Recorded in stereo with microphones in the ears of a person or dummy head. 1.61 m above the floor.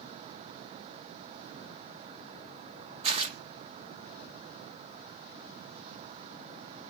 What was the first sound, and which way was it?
Tearing paper, 35° right (ahead or behind).